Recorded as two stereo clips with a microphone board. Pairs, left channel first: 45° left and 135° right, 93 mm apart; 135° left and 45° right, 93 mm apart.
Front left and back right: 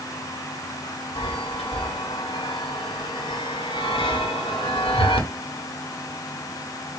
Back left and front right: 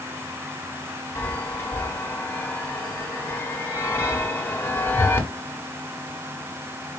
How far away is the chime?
About 1.1 m.